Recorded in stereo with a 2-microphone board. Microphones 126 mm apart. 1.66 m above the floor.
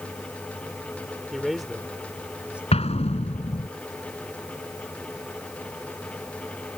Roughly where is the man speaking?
Centre.